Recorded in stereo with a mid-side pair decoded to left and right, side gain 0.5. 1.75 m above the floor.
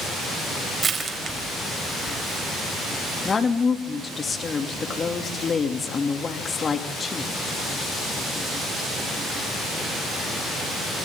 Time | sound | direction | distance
0.8 | crushing | 40° right | 4.5 m
3.2 | a woman speaking | 35° left | 3 m